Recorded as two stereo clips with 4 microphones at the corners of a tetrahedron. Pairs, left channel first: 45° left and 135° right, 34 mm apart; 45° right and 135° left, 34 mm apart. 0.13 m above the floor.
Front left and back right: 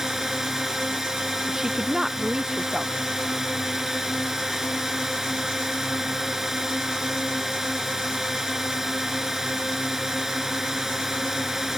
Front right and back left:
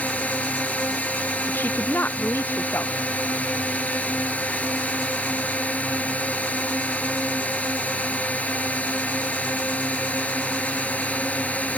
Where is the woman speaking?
65° right.